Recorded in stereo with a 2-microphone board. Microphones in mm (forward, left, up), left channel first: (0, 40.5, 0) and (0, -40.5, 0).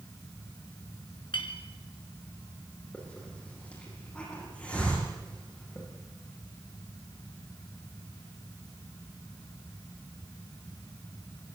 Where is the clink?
70° left (ahead or behind), 2.5 m.